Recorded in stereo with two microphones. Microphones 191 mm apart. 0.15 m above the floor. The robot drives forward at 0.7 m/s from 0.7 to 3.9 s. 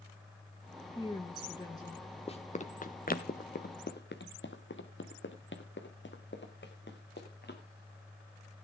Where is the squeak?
No squeak in this recording.